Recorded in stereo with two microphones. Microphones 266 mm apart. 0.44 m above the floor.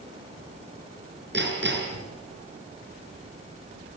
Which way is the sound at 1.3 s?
40° right (ahead or behind).